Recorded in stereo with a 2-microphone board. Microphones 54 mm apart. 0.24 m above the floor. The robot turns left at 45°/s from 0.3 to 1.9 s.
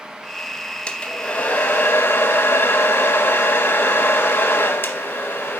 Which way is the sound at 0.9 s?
160° left.